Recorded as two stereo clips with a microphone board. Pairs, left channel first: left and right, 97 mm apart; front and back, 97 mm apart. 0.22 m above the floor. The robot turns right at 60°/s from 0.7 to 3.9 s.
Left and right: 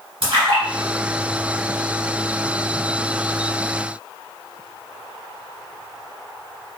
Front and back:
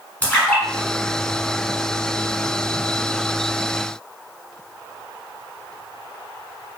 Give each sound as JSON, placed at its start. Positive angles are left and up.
{"t": 0.2, "sound": "a splash", "azimuth_deg": -75, "distance_m": 1.1}